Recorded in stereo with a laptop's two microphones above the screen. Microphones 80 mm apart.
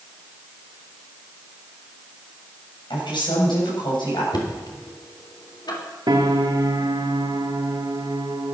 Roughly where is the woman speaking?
Left.